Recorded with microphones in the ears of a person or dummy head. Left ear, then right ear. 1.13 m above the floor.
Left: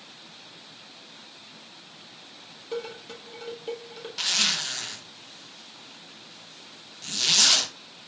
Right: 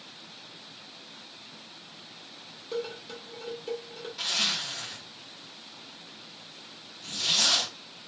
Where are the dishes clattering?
10° left (ahead or behind), 0.8 m.